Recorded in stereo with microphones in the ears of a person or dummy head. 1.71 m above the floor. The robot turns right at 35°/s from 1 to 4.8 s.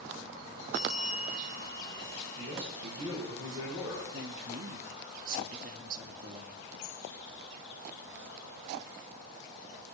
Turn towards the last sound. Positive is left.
turn(degrees=-40)  # may be behind; listen again after turning